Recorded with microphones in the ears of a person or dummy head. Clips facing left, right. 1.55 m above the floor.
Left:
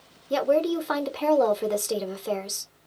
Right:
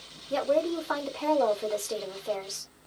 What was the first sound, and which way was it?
A woman speaking, 60° left (ahead or behind).